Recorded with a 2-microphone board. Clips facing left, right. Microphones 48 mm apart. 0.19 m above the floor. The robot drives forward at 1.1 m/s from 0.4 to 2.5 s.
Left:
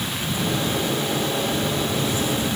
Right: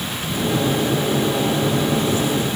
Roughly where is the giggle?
I don't hear a giggle.